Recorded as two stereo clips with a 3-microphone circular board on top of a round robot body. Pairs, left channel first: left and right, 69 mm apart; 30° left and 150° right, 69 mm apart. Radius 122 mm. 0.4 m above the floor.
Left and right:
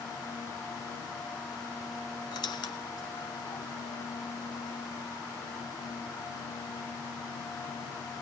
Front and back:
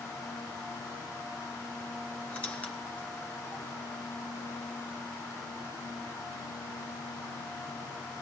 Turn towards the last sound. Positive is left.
turn(degrees=100)